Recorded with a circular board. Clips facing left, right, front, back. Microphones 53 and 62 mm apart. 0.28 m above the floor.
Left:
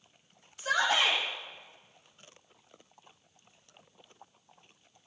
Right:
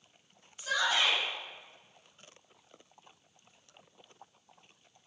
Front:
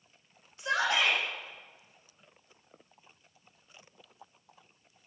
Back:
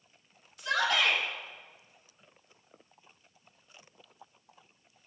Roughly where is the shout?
Ahead left.